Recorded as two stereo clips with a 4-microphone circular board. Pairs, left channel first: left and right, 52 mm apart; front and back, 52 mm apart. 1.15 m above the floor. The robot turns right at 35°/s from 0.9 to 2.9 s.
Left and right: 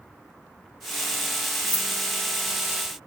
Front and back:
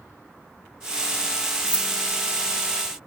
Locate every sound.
1.7 s keys jangling: 110° right, 4 m; by 1.9 s 105° right, 4 m